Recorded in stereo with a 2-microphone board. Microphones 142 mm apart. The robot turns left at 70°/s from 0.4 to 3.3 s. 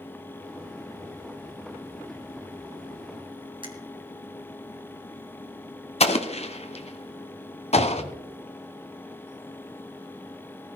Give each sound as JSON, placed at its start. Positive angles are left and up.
{"t": 3.6, "sound": "a finger snap", "side_deg": -35, "distance_m": 1.8}
{"t": 6.0, "sound": "an explosion", "side_deg": 45, "distance_m": 1.0}
{"t": 7.8, "sound": "a cupboard door", "side_deg": -65, "distance_m": 1.2}